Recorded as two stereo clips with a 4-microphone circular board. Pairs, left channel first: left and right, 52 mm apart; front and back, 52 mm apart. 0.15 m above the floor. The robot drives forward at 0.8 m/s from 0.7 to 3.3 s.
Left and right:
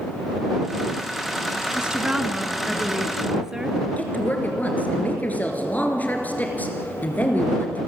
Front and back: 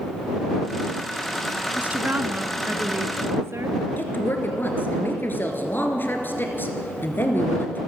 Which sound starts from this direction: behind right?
A woman speaking, at 1.8 s.